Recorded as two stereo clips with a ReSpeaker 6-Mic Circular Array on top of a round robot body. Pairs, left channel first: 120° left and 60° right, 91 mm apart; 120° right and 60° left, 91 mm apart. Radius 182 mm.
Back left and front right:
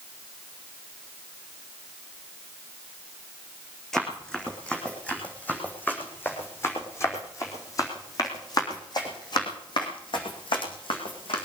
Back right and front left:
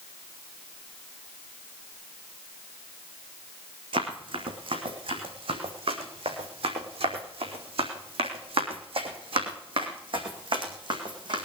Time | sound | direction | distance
3.9 | running footsteps | 35° left | 4 m